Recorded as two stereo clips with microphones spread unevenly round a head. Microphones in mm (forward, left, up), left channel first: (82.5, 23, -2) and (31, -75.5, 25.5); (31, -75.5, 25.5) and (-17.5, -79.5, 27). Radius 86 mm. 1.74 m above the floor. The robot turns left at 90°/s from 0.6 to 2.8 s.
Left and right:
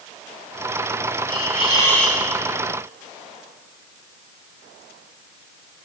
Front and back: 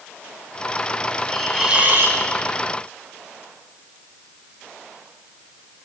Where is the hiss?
70° right, 6 m; by 2.2 s 155° right, 6 m.